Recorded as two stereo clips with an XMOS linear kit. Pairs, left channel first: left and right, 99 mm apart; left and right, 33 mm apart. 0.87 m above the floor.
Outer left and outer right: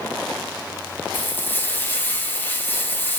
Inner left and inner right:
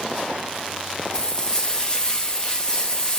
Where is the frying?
20° left (ahead or behind), 0.8 m.